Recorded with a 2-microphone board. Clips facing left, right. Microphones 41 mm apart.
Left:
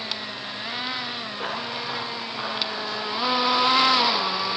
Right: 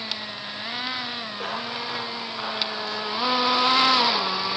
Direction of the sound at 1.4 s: 10° left (ahead or behind).